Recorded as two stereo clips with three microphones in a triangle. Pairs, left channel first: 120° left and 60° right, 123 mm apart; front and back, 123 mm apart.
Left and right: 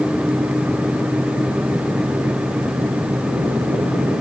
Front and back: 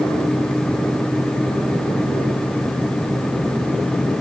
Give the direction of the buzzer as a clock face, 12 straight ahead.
No buzzer in this recording.